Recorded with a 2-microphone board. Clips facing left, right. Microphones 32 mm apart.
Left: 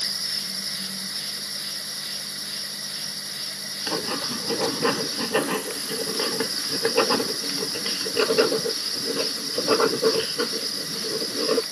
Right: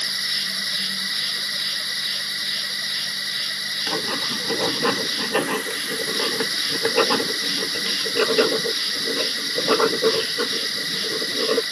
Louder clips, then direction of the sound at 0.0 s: Right 5 dB; 80° right.